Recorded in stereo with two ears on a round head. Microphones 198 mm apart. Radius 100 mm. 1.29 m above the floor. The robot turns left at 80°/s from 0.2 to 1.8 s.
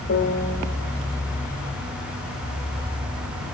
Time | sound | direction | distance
0.1 | a piano | 45° left (ahead or behind) | 1.6 m